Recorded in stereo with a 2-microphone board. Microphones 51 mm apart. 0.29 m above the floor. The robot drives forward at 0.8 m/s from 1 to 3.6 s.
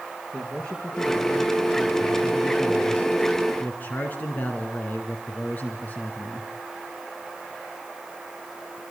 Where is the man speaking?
20° left (ahead or behind), 4.5 m; by 6.5 s 35° left (ahead or behind), 3 m.